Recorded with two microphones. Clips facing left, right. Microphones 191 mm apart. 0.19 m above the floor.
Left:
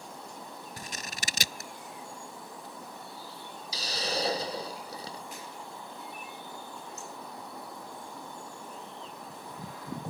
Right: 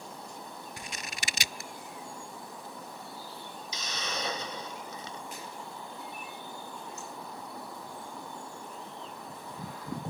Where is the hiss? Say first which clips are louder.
Left 6 dB; 35° left (ahead or behind).